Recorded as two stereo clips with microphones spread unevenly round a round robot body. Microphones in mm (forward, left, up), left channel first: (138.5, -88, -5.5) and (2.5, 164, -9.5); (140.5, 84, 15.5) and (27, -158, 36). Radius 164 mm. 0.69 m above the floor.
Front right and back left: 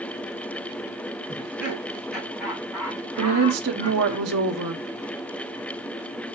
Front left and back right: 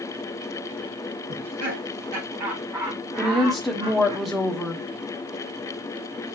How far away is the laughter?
About 4 m.